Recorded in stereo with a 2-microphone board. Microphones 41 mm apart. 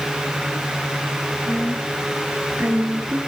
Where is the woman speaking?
40° right (ahead or behind), 4.5 m; by 3.2 s 65° right (ahead or behind), 5 m.